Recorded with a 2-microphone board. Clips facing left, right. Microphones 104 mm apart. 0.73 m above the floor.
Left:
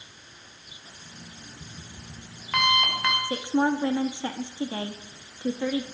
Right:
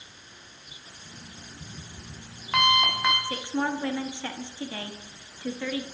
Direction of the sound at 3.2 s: 25° left (ahead or behind).